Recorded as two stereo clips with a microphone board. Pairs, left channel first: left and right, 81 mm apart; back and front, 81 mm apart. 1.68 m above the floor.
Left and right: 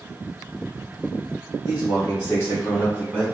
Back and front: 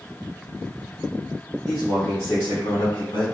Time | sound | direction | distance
1.6 | a man speaking | 95° left | 1.2 m